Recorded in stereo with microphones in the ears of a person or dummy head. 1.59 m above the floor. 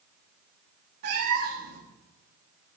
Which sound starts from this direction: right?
A cat meowing, at 1.0 s.